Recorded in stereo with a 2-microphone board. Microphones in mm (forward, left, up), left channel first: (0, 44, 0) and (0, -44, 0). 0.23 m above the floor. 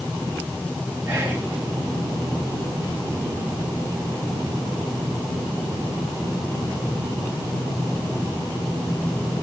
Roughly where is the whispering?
Right.